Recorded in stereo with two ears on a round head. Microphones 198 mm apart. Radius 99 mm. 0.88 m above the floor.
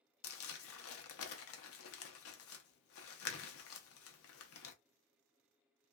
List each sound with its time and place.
0.2 s crumpling: 65° left (ahead or behind), 0.6 m